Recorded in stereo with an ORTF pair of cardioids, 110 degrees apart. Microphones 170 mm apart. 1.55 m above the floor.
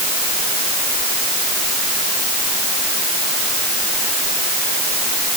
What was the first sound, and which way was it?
Only background noise.